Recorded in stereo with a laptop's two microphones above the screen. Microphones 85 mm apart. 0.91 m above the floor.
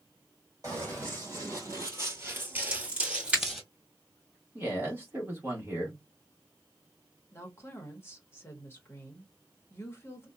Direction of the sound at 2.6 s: 15° right (ahead or behind).